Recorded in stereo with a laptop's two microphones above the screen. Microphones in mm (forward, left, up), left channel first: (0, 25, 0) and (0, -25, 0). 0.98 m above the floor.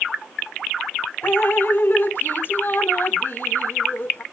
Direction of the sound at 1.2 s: 50° left (ahead or behind).